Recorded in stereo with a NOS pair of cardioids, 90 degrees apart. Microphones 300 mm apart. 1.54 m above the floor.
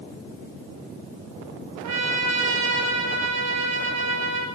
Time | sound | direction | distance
1.8 | a trumpet | 60° right | 3 m